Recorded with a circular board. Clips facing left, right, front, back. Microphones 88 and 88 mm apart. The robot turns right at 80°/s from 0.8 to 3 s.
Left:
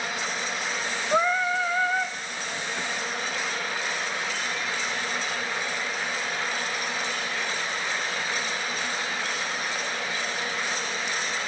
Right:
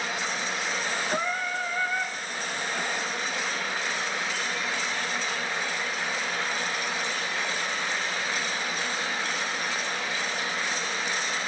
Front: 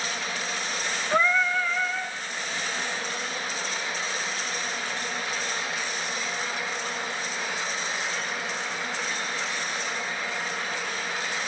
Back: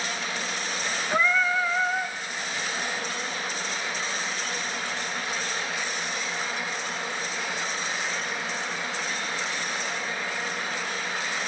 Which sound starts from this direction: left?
Singing, at 1.1 s.